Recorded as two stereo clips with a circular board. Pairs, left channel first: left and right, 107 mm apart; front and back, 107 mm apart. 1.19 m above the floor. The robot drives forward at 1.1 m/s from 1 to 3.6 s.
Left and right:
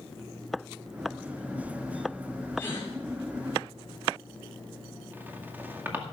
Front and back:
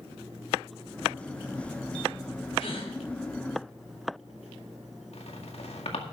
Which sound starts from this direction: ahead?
A squeak, at 5.1 s.